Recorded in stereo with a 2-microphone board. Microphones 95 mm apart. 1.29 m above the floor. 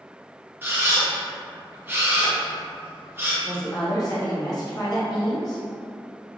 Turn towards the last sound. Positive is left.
turn(degrees=40)  # may be behind; listen again after turning